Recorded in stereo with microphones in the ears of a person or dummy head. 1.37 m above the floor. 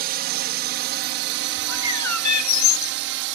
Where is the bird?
80° left.